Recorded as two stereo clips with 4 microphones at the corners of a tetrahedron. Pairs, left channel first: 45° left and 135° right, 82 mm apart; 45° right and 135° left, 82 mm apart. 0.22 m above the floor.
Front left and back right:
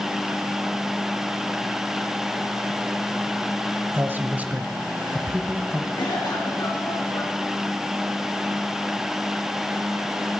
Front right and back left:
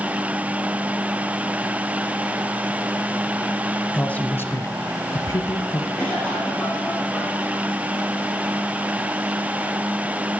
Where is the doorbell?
No doorbell in this recording.